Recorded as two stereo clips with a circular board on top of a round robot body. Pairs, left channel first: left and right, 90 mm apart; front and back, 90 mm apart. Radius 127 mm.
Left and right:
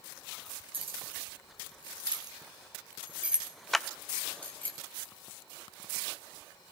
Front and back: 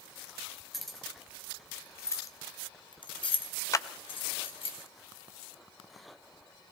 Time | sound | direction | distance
0.7 | keys jangling | 90° right | 3 m
3.7 | a clap | 5° left | 0.6 m